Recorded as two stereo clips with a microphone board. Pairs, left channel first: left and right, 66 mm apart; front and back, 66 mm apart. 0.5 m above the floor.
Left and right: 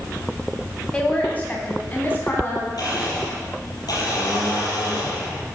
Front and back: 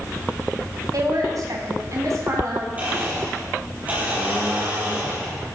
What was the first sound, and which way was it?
A woman speaking, 160° left.